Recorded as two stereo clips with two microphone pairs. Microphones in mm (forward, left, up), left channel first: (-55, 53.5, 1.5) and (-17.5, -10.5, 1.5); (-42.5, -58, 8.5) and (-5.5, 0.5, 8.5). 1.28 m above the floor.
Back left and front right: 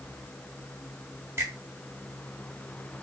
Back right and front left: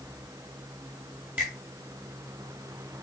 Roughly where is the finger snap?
Ahead.